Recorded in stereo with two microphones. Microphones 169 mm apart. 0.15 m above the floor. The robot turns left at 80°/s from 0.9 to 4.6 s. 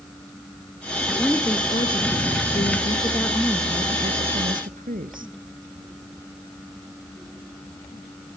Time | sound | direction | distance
1.1 | a woman speaking | 165° right | 2.5 m